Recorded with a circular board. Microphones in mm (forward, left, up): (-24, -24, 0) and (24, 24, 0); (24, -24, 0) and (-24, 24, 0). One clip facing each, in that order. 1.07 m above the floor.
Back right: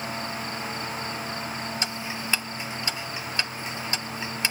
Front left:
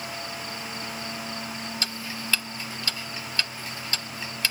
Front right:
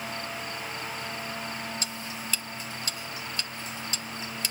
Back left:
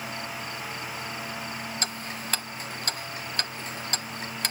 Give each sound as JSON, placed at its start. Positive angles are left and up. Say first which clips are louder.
{"t": 1.8, "sound": "ticking", "louder": "back right 2 dB, back left 2 dB", "azimuth_deg": 160, "distance_m": 0.8}